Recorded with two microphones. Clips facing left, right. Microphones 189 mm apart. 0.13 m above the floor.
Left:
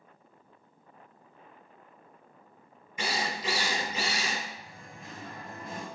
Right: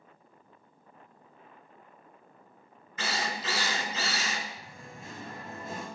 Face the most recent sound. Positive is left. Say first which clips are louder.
# right 1 dB
turn(degrees=-30)  # may be behind; listen again after turning